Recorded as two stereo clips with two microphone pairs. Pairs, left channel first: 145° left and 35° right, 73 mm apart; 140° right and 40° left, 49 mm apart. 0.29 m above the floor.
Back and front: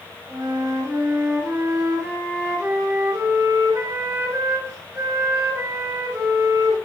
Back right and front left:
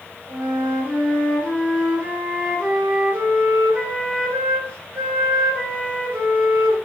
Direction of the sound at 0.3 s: 5° right.